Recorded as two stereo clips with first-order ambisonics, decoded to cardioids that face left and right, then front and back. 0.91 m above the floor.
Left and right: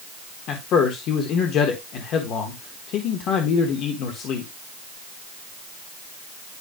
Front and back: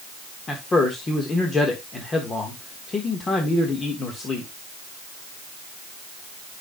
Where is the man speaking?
65° left, 1.2 m.